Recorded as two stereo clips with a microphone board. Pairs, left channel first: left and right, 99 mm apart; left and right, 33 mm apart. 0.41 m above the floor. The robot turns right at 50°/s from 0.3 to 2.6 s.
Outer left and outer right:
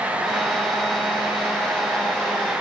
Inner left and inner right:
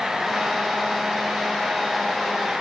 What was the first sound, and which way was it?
Only background noise.